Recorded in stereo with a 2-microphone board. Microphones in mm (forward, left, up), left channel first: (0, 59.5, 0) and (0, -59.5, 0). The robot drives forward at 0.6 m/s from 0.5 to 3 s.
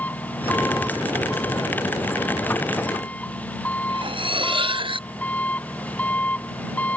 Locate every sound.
0.0 s an engine running: 15° left (ahead or behind)
3.9 s cutlery clinking: 45° right (ahead or behind)